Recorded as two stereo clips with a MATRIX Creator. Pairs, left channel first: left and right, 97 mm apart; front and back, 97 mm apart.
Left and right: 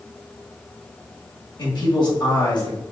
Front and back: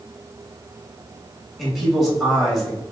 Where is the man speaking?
90° left, 2.0 m.